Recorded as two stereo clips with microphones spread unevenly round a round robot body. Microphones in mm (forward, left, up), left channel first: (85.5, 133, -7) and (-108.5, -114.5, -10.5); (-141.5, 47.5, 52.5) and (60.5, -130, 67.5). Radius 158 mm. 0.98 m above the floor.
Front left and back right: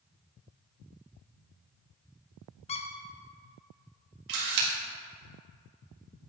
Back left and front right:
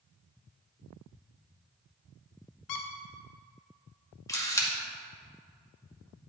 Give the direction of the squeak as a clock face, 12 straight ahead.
8 o'clock.